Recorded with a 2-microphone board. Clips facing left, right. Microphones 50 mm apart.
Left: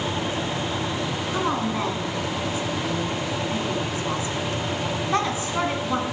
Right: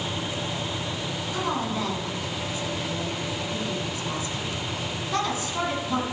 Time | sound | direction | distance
1.3 | a woman speaking | 30° left (ahead or behind) | 1.5 m